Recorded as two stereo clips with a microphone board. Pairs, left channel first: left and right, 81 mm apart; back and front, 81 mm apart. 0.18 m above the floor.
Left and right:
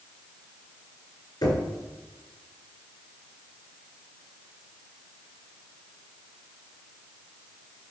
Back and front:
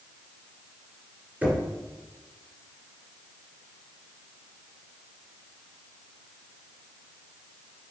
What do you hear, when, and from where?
1.4 s knocking: 70° left, 2 m